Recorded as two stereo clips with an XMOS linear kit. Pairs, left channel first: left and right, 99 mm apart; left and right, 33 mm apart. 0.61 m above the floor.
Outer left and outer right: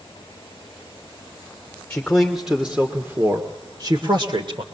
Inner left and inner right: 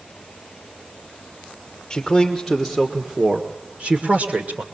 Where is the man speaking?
10° left (ahead or behind), 1.8 m; by 4.6 s 60° right (ahead or behind), 2 m.